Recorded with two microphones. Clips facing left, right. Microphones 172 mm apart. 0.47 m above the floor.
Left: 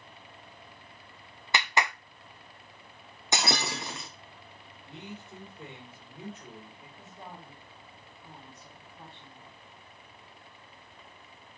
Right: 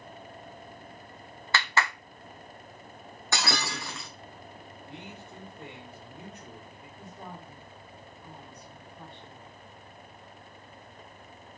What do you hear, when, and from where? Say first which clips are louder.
1.5 s a clap: even; 20° left (ahead or behind), 0.6 m
3.3 s breaking glass: left 1 dB; 20° left (ahead or behind), 2 m
4.8 s a man speaking: left 2 dB; 5° left (ahead or behind), 6 m
7.0 s a woman speaking: right 3 dB; centre (ahead or behind), 4 m